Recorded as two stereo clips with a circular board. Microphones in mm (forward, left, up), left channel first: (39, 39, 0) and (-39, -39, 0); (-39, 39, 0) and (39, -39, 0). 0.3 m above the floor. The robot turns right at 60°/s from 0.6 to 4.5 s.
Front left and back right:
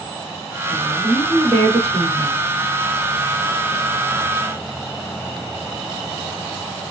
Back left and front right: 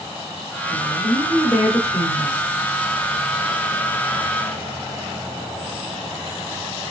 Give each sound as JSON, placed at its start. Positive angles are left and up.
{"t": 0.7, "sound": "a woman speaking", "azimuth_deg": 155, "distance_m": 2.5}